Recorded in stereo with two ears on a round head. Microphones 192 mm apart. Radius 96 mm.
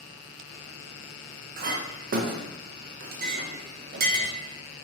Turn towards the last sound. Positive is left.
turn(degrees=-45)  # may be behind; listen again after turning